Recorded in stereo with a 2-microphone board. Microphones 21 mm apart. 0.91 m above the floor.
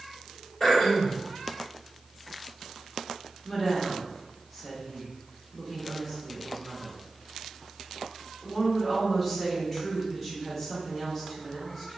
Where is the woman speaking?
10° left (ahead or behind), 1.2 m.